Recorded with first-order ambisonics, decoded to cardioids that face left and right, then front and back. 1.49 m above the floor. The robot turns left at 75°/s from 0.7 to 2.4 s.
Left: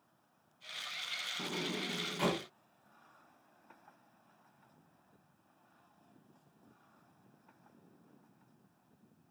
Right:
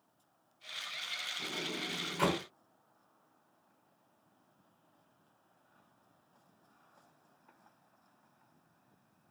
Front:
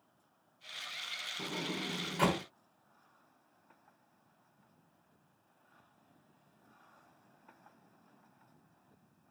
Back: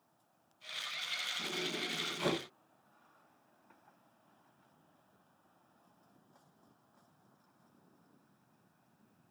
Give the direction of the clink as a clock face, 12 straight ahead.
No clink in this recording.